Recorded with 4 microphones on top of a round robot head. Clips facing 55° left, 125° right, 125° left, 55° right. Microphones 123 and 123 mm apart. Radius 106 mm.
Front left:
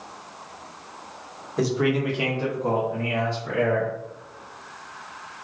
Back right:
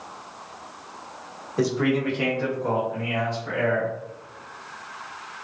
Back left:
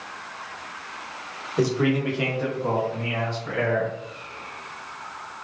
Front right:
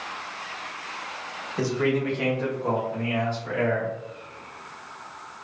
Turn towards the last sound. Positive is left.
turn(degrees=15)